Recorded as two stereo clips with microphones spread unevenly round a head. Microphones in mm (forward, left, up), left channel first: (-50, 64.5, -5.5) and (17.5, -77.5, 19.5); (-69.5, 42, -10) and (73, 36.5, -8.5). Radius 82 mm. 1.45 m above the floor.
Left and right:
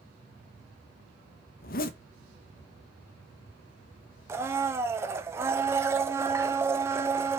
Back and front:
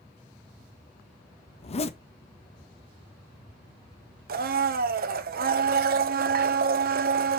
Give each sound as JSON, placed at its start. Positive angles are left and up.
{"t": 1.6, "sound": "a zipper", "azimuth_deg": 145, "distance_m": 0.8}
{"t": 4.3, "sound": "a blender", "azimuth_deg": 10, "distance_m": 0.8}